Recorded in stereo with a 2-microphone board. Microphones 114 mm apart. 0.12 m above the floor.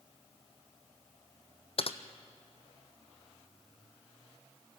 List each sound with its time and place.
1.8 s typing on a keyboard: 55° left (ahead or behind), 1.0 m